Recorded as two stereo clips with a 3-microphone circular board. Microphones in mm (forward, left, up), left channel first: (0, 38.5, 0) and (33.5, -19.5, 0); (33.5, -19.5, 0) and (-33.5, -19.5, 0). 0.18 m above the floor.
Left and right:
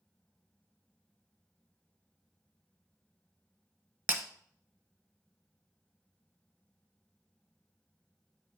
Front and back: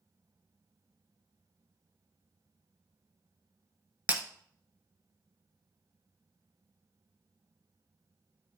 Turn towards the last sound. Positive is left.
turn(degrees=-115)